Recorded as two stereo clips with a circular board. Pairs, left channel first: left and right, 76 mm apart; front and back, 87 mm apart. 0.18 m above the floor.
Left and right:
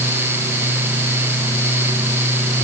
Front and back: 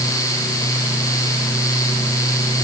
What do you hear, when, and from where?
Only background noise.